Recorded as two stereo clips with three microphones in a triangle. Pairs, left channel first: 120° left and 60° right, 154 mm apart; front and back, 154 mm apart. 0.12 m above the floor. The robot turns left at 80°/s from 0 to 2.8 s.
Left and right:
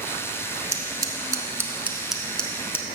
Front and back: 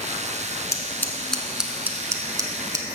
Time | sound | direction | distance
0.7 | scissors | 30° right | 0.7 m